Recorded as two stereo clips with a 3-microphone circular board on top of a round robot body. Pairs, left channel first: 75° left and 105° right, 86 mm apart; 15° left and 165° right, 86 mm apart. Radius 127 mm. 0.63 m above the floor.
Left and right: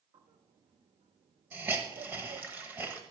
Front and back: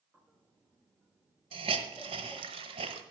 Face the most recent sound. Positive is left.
turn(degrees=-175)